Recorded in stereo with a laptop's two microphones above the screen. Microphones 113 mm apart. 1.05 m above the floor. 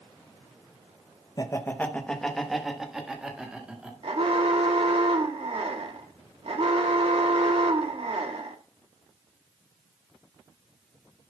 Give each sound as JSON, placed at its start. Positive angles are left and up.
{"t": 1.4, "sound": "laughter", "side_deg": 35, "distance_m": 0.6}
{"t": 4.0, "sound": "an alarm", "side_deg": -60, "distance_m": 1.5}